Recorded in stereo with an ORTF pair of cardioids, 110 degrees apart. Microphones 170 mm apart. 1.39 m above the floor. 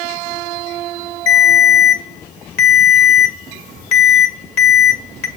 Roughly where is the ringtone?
Ahead left.